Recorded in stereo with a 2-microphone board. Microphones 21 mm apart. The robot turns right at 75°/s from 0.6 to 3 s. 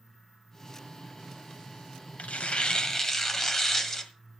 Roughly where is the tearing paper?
Left.